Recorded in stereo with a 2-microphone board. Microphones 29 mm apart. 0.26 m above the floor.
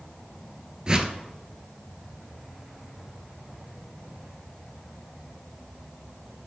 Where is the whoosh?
30° right (ahead or behind), 0.8 m.